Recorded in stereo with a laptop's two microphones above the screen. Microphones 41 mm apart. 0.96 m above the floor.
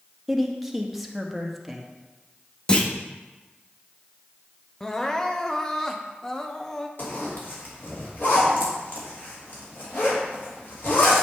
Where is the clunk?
25° left (ahead or behind), 0.8 m.